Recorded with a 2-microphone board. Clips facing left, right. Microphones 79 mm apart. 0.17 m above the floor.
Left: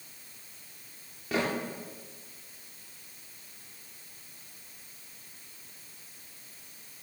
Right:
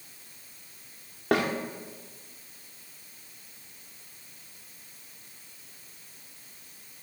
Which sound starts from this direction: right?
A snare drum, at 1.3 s.